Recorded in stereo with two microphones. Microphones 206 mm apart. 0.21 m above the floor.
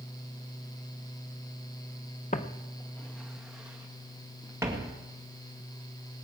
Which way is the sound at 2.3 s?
40° left (ahead or behind).